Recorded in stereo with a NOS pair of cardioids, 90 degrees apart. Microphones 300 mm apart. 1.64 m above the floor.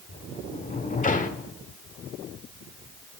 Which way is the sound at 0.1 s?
25° left.